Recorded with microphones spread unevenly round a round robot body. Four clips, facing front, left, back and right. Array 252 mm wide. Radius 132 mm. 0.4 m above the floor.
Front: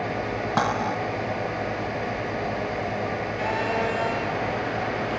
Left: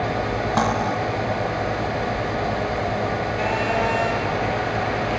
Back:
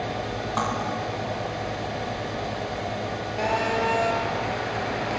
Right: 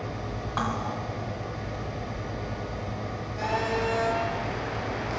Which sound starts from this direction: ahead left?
Cutlery clinking, at 0.6 s.